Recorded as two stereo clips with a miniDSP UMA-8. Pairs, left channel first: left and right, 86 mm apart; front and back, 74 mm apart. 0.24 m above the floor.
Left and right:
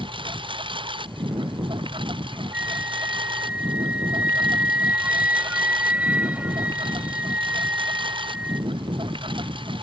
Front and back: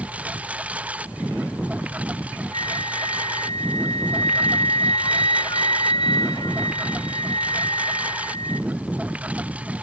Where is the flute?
15° right.